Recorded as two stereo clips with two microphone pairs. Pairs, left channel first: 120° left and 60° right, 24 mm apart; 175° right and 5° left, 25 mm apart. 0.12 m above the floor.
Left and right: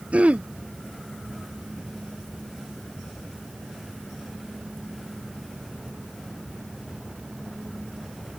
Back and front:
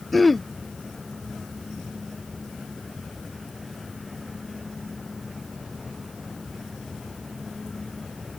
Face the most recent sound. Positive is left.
turn(degrees=-95)